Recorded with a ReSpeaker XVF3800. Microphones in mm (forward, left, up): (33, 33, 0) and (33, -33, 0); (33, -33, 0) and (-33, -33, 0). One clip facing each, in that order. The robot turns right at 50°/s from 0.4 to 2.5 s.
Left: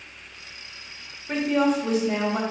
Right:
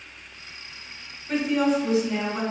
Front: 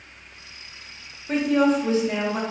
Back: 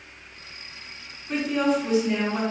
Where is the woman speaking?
20° left, 0.7 m; by 2.4 s 80° left, 0.7 m.